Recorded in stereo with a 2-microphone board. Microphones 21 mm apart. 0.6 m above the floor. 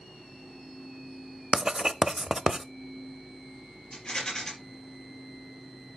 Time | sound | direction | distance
1.5 | writing | 35° right (ahead or behind) | 0.6 m
3.9 | a rattle | 35° left (ahead or behind) | 5 m